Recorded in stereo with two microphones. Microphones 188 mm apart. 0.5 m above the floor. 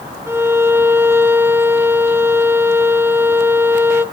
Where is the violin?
10° right (ahead or behind), 0.7 m.